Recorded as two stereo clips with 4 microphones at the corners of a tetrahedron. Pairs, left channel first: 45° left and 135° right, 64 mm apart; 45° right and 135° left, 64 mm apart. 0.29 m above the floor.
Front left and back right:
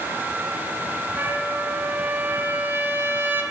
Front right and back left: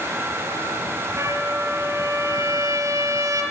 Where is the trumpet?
170° left, 5 m.